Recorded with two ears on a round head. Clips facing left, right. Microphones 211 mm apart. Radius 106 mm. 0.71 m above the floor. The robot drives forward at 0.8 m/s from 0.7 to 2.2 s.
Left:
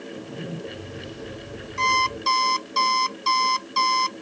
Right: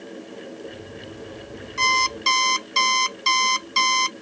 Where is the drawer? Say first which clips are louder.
Left 4 dB; 80° left.